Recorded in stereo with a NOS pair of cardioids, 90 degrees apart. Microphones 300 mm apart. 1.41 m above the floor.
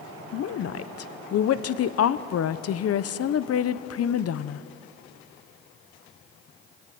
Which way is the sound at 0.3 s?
55° left.